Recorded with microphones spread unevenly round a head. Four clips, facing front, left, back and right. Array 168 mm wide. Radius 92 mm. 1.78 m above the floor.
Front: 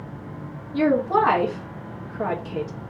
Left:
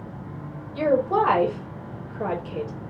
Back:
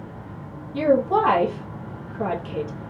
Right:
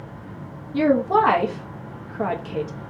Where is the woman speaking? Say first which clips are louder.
Right 3 dB, back 1 dB; 80° right, 2.0 m.